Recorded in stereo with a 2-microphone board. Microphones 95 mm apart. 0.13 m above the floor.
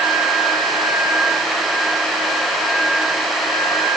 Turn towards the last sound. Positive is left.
No sound to turn to.